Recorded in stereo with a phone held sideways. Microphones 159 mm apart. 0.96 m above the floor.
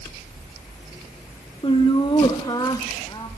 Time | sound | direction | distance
1.6 | laughter | 35° left (ahead or behind) | 0.8 m